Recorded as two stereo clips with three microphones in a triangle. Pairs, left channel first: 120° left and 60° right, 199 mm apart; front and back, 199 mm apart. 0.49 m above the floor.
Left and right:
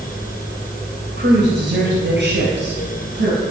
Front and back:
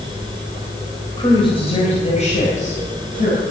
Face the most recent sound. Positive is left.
turn(degrees=-45)